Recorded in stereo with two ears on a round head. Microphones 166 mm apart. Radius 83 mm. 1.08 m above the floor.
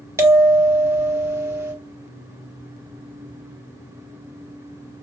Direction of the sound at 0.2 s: 15° right (ahead or behind).